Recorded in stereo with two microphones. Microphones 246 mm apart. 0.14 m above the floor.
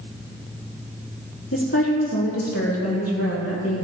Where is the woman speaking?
65° left (ahead or behind), 4.5 m; by 3.9 s 70° left (ahead or behind), 3.5 m.